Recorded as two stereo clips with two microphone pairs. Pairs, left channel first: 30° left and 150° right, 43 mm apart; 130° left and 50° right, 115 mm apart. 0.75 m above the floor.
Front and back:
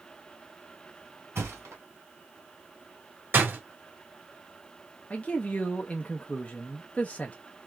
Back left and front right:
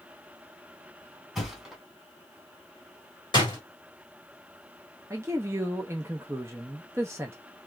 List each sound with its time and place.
1.4 s a thud: 140° right, 2.0 m
3.3 s a door slam: 175° left, 1.6 m
5.1 s a man speaking: 10° right, 0.5 m